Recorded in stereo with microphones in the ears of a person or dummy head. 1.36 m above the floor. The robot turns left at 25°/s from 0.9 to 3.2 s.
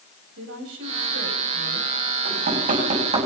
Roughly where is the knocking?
Right.